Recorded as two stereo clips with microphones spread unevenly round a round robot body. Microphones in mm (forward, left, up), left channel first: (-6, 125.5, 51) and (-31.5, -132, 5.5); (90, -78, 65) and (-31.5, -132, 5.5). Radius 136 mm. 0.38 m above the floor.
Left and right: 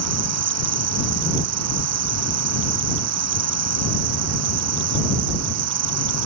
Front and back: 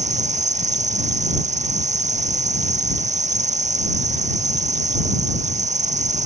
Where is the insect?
125° right.